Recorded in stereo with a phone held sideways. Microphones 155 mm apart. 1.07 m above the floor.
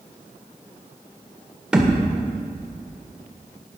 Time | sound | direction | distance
1.7 | a thud | 5° right (ahead or behind) | 1.6 m